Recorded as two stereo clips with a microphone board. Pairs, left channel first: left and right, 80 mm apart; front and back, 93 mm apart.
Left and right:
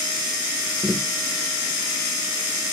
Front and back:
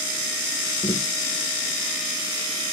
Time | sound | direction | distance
0.8 | tapping | 20° right | ?